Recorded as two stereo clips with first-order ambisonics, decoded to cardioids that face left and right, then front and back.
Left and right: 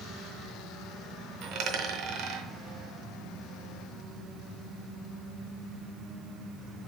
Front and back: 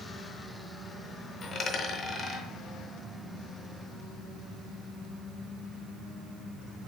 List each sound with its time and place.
1.4 s a dropped coin: 65° right, 0.6 m